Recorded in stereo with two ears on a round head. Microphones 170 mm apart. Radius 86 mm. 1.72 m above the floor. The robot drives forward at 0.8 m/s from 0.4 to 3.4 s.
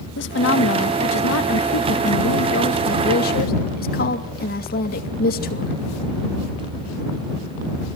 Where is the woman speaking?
65° left (ahead or behind), 2 m; by 5.7 s 50° left (ahead or behind), 2.5 m.